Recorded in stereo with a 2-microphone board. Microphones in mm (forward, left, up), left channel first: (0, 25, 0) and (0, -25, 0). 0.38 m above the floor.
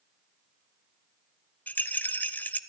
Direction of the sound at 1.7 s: 35° left (ahead or behind).